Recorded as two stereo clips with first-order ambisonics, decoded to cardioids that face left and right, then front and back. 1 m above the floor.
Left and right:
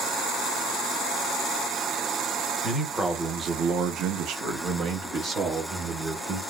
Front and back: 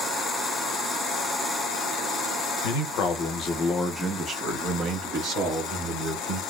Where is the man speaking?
Straight ahead, 0.9 m; by 6.4 s 145° right, 1.6 m.